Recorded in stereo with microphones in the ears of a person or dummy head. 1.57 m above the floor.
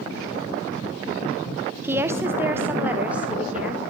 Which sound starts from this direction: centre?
A woman speaking, at 1.8 s.